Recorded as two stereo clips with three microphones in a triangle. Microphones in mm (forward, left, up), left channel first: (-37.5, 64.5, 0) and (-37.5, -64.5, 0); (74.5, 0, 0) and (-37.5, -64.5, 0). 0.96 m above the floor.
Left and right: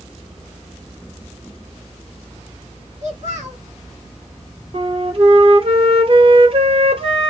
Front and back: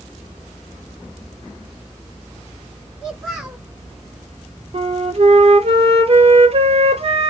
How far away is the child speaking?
About 2.5 m.